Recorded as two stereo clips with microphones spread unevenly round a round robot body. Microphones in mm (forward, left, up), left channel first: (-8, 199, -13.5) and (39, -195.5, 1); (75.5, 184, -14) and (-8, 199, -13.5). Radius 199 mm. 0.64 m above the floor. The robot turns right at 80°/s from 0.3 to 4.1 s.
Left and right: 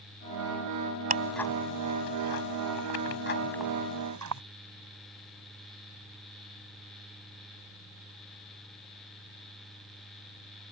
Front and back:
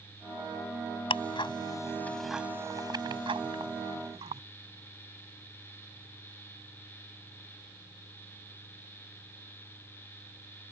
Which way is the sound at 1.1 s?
15° right.